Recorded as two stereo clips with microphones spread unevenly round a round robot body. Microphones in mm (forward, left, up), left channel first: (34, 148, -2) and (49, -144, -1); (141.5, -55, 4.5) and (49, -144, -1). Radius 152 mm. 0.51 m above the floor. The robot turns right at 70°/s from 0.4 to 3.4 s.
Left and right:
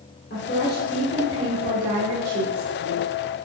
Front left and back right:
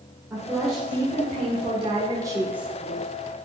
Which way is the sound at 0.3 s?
145° left.